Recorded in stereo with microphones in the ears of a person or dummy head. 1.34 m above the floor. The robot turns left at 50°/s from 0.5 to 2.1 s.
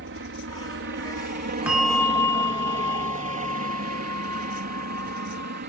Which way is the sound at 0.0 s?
60° right (ahead or behind).